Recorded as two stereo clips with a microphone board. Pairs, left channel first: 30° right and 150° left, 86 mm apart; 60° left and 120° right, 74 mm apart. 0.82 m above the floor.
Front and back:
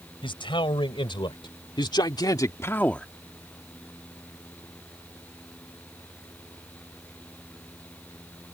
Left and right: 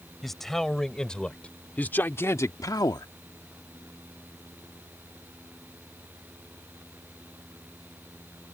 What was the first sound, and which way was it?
A man speaking, 25° right.